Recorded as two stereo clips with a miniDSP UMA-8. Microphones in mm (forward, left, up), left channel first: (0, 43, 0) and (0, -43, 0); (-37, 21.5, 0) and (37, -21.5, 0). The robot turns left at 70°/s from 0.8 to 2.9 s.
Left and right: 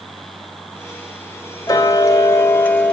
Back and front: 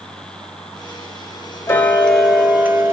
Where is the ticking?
100° left, 0.7 m; by 2.9 s 15° left, 0.7 m.